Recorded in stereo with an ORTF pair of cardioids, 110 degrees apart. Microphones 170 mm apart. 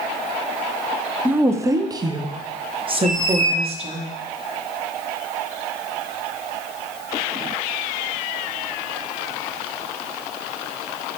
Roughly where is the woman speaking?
Ahead.